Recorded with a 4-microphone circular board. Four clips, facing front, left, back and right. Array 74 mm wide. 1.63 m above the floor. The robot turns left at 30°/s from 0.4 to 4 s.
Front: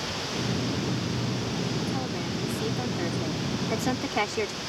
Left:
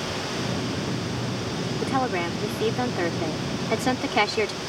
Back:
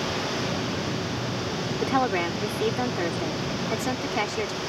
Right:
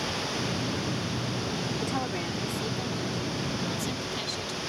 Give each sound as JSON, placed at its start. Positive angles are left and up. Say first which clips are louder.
{"t": 1.8, "sound": "a woman speaking", "louder": "left 6 dB, back 7 dB", "azimuth_deg": 155}